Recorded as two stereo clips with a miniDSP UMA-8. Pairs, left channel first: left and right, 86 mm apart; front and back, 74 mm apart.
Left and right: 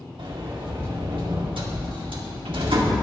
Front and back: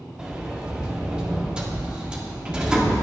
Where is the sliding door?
100° right, 1.8 m.